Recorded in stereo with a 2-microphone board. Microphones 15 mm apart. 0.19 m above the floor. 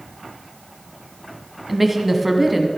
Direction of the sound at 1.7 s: 5° right (ahead or behind).